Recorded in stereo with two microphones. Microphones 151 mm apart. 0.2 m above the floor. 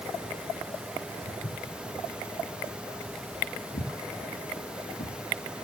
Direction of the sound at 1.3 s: 60° left (ahead or behind).